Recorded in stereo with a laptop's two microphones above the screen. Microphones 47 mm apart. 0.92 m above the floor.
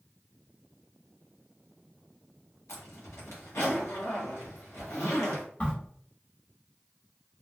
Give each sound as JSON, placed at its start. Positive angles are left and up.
{"t": 2.7, "sound": "a zipper", "side_deg": 75, "distance_m": 1.0}
{"t": 5.6, "sound": "a crack", "side_deg": 35, "distance_m": 1.0}